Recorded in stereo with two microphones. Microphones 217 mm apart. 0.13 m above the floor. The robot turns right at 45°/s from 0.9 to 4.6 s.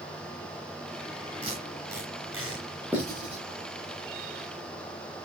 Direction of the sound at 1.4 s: 25° right (ahead or behind).